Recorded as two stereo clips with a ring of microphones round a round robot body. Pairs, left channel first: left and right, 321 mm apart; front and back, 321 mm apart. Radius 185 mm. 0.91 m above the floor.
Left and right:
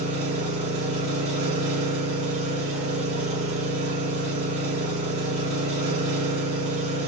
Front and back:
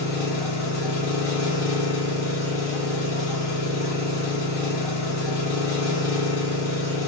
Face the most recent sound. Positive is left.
turn(degrees=-20)